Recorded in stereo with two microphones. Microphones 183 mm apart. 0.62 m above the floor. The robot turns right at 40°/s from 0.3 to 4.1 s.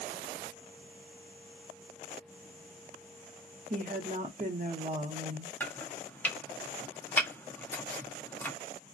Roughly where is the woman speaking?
Right.